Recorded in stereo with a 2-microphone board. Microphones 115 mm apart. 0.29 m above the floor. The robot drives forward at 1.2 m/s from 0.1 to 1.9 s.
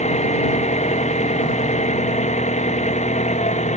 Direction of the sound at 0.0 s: 75° left (ahead or behind).